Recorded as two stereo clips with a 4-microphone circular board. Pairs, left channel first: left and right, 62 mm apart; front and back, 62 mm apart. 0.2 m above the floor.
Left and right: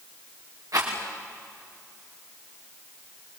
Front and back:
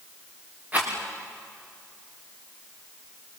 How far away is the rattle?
About 5.5 m.